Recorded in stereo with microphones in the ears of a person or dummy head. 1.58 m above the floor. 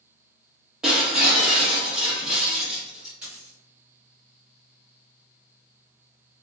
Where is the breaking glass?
5° right (ahead or behind), 1.3 m.